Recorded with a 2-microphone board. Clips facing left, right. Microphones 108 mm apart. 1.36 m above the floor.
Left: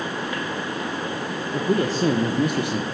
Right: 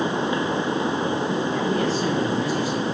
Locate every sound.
1.5 s a man speaking: 40° left (ahead or behind), 1.5 m; by 2.9 s 70° left (ahead or behind), 1.3 m